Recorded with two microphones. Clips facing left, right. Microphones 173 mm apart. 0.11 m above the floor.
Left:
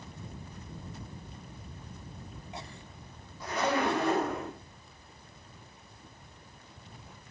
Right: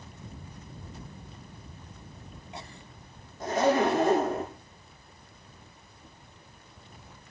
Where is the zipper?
45° right (ahead or behind), 7 m.